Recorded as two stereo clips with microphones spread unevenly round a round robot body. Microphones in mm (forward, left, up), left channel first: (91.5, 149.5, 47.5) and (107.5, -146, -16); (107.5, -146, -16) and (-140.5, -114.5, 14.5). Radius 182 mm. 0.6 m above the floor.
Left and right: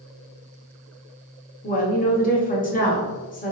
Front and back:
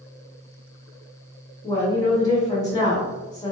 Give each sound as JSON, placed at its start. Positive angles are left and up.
{"t": 1.6, "sound": "a woman speaking", "azimuth_deg": 35, "distance_m": 1.1}